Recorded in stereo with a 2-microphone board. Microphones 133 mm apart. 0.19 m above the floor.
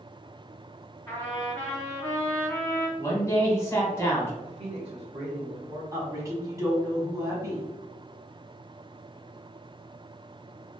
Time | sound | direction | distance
1.1 | a trumpet | 15° left (ahead or behind) | 1.9 m
3.0 | a man speaking | 20° left (ahead or behind) | 1.1 m
4.4 | a man speaking | 45° right (ahead or behind) | 1.4 m
5.9 | a woman speaking | 20° right (ahead or behind) | 1.1 m